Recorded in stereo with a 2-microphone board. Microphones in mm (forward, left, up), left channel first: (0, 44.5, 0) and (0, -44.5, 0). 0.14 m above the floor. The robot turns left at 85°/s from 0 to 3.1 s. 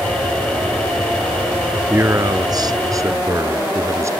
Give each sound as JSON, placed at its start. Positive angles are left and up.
{"t": 1.9, "sound": "a man speaking", "azimuth_deg": -30}